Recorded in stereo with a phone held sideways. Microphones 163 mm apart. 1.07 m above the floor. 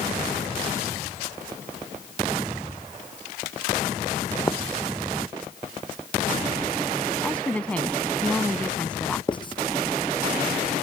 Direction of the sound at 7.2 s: 10° left (ahead or behind).